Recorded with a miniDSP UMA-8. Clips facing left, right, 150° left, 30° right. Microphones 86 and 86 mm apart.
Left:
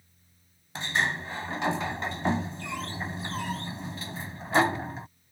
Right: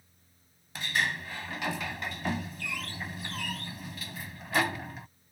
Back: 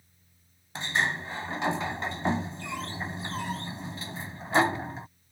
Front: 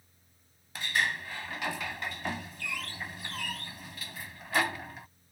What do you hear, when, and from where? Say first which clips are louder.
0.8 s a sliding door: left 2 dB, back 2 dB; 115° left